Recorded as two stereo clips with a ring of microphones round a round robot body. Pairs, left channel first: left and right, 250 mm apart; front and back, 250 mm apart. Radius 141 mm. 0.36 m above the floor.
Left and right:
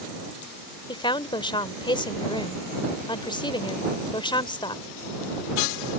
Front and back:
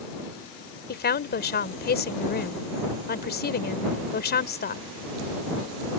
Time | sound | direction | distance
0.9 | a woman speaking | 25° left | ?